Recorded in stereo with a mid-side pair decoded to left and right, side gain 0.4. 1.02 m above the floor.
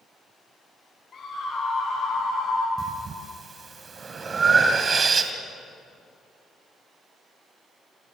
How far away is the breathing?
About 3 m.